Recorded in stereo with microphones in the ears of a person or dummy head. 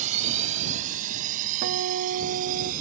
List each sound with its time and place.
0.0 s a drone: 40° right (ahead or behind); by 2.8 s 50° right (ahead or behind)
1.6 s a guitar: 55° right (ahead or behind)